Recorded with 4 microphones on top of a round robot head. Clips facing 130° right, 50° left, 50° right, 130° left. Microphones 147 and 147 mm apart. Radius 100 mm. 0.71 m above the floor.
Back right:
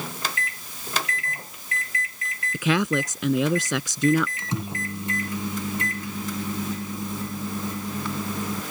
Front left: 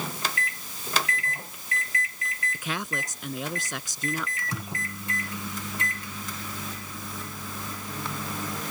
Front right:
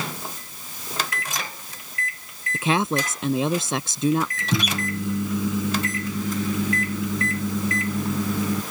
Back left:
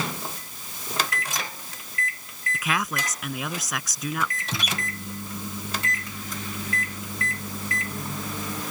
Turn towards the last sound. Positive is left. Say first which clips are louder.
# back right 5 dB, front right 7 dB
turn(degrees=-60)